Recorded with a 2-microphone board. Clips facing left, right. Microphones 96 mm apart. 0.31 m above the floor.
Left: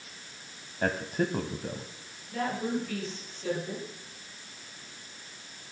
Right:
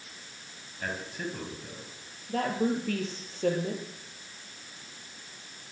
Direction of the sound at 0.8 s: 45° left (ahead or behind).